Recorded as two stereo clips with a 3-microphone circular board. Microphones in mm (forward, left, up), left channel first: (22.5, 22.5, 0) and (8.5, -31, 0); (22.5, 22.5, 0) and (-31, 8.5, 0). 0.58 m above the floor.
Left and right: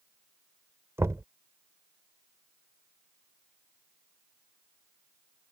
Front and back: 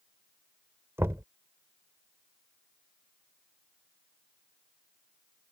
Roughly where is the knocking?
Behind right.